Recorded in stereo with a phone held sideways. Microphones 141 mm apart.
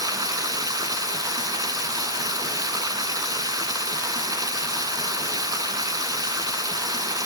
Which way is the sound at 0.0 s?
25° right (ahead or behind).